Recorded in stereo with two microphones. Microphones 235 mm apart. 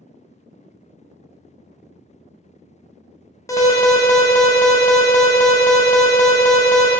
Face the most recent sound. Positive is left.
turn(degrees=15)  # may be behind; listen again after turning